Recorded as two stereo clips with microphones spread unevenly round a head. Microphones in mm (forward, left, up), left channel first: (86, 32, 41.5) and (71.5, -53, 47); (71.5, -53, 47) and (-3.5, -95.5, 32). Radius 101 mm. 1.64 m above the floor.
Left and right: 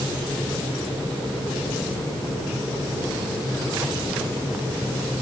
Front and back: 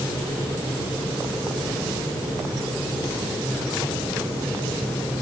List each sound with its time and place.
Only background noise.